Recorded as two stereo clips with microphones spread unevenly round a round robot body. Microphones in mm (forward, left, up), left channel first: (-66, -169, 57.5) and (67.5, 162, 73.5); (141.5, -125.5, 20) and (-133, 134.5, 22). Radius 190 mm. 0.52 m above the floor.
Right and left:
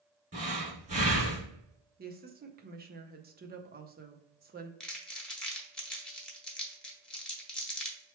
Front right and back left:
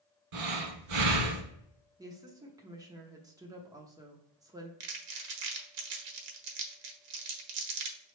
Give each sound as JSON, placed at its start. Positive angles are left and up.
{"t": 0.3, "sound": "breathing", "azimuth_deg": 140, "distance_m": 1.6}
{"t": 2.0, "sound": "a woman speaking", "azimuth_deg": 70, "distance_m": 0.7}
{"t": 4.8, "sound": "crumpling", "azimuth_deg": 160, "distance_m": 1.0}